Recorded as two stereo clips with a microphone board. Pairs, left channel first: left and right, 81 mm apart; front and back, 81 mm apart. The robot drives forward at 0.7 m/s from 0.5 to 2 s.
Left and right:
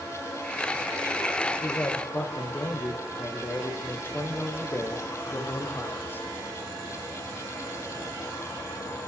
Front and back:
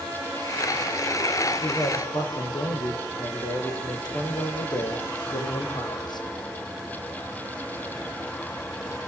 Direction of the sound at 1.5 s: 25° left.